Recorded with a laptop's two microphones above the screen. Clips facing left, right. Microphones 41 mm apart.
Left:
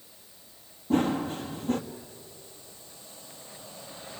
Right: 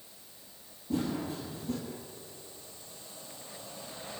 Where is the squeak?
No squeak in this recording.